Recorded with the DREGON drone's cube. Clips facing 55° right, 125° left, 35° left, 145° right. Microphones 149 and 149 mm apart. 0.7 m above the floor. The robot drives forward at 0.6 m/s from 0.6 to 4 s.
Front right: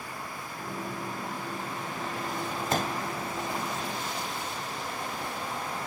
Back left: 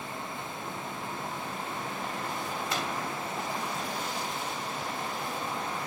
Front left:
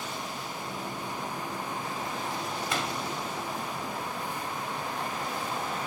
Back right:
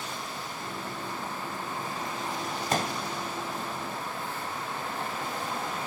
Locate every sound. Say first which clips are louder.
2.7 s a pop: front right 6 dB, back right 5 dB; 100° right, 1.6 m; by 3.0 s 105° right, 1.6 m